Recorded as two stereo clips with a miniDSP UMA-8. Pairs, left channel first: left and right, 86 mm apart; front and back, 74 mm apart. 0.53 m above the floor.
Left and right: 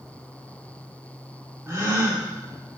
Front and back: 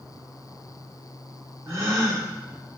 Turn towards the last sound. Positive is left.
turn(degrees=-140)